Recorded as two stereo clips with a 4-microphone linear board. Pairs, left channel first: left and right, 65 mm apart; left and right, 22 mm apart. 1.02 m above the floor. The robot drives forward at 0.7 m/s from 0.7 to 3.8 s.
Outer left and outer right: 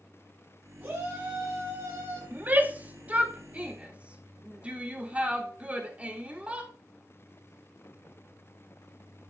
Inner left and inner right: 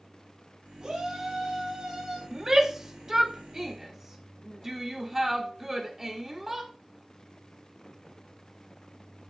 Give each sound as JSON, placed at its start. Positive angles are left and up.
{"t": 0.8, "sound": "a shout", "side_deg": -25, "distance_m": 9.0}
{"t": 2.3, "sound": "a shout", "side_deg": -30, "distance_m": 2.0}